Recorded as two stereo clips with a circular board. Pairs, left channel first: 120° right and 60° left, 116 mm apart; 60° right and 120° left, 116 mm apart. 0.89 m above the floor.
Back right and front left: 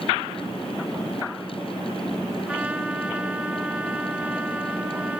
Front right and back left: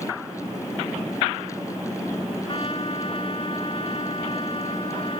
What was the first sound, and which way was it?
A trumpet, 20° right.